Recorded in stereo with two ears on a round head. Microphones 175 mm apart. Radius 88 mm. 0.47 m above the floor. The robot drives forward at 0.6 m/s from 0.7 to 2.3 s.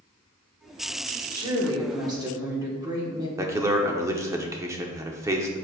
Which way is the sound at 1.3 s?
25° right (ahead or behind).